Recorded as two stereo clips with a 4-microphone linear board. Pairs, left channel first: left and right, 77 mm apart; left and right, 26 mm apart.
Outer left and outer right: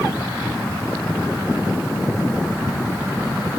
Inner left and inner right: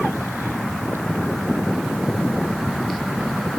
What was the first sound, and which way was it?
Only background noise.